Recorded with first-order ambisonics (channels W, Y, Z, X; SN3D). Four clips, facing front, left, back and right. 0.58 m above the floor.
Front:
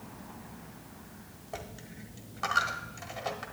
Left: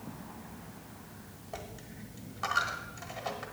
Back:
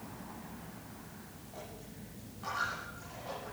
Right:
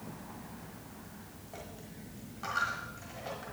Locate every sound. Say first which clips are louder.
1.5 s a dropped coin: left 3 dB, front 6 dB; 20° left, 1.3 m